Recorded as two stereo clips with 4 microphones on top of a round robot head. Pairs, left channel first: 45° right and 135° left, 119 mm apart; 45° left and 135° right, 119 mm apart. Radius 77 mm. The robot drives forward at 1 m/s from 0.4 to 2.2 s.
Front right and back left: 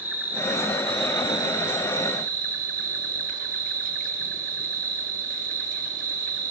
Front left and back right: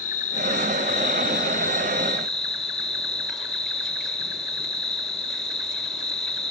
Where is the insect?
60° left, 1.5 m; by 6.5 s 130° left, 1.7 m.